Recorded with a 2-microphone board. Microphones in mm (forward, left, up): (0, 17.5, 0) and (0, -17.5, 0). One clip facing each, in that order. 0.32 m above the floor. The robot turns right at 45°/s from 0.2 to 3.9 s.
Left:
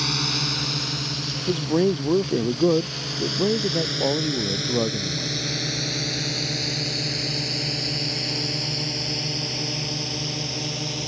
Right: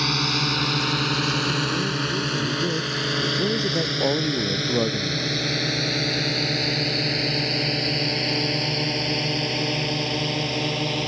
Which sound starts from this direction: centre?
A drone, at 0.0 s.